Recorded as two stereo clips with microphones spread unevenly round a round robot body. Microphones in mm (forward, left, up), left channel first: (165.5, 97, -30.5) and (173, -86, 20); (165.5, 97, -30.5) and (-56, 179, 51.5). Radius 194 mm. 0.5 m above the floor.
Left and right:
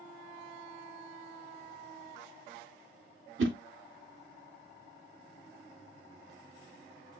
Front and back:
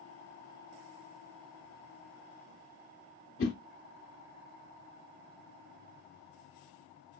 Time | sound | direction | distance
3.4 | a whoosh | 60° right | 0.5 m